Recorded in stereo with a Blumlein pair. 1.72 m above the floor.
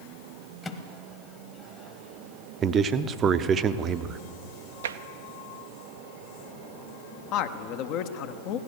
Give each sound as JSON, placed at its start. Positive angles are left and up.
{"t": 0.6, "sound": "a microwave", "azimuth_deg": 10, "distance_m": 1.1}
{"t": 2.6, "sound": "a man speaking", "azimuth_deg": -25, "distance_m": 0.7}
{"t": 4.8, "sound": "tapping", "azimuth_deg": -65, "distance_m": 0.6}
{"t": 7.3, "sound": "a man speaking", "azimuth_deg": 40, "distance_m": 0.7}